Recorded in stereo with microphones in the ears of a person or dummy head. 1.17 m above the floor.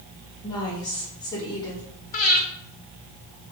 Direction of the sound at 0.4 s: 20° left (ahead or behind).